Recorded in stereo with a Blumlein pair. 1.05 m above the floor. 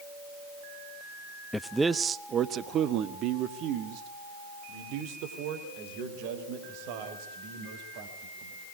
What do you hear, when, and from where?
1.5 s a man speaking: 5° left, 0.5 m; by 8.6 s 45° right, 5 m